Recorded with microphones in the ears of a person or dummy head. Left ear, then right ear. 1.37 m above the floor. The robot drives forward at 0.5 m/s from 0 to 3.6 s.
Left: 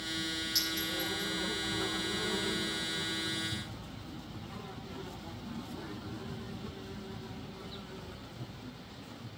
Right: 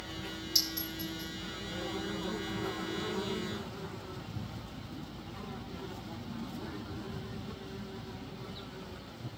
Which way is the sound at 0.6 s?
Centre (ahead or behind).